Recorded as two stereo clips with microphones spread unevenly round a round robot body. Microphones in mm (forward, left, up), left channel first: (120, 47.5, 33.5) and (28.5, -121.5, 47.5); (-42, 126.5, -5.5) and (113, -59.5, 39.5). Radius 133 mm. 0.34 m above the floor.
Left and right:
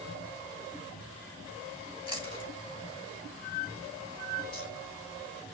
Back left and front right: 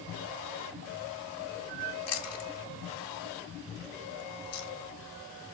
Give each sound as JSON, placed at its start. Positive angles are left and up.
{"t": 2.1, "sound": "chewing", "azimuth_deg": 125, "distance_m": 1.8}